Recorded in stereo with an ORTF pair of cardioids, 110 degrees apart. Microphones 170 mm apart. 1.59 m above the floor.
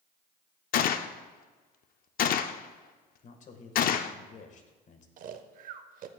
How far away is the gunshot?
About 0.5 m.